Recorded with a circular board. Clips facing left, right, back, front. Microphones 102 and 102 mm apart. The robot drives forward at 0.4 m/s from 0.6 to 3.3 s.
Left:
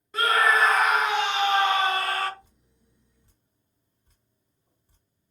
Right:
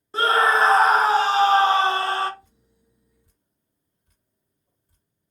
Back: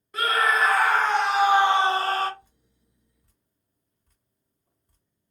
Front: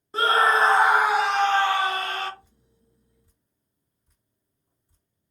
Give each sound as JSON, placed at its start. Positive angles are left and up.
{"t": 0.1, "sound": "a scream", "azimuth_deg": -45, "distance_m": 0.5}
{"t": 2.4, "sound": "dripping", "azimuth_deg": 145, "distance_m": 2.5}